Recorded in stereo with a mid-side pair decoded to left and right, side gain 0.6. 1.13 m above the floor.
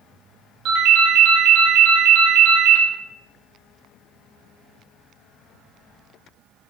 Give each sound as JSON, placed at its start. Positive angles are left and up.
{"t": 0.7, "sound": "a ringtone", "azimuth_deg": -60, "distance_m": 0.6}